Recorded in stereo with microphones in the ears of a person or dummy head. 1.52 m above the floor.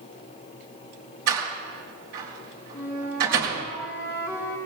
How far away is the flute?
About 6.5 m.